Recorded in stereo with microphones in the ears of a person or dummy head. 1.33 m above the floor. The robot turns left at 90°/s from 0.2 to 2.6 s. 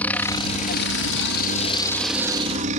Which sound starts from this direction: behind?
A helicopter, at 0.0 s.